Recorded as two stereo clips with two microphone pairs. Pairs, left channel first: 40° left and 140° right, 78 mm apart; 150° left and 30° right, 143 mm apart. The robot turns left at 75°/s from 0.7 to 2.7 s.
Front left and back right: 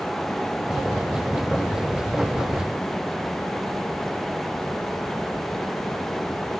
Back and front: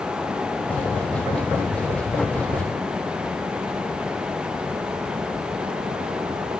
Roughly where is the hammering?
I don't hear hammering.